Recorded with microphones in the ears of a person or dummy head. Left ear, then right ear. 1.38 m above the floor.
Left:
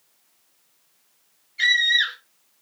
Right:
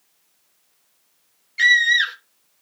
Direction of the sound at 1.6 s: 70° right (ahead or behind).